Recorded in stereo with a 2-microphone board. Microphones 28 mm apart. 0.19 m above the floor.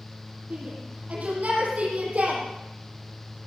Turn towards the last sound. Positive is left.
turn(degrees=-50)  # may be behind; listen again after turning